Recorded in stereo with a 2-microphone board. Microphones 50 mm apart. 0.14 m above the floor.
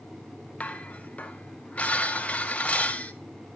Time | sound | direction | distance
0.6 | dishes clattering | 25° left (ahead or behind) | 1.3 m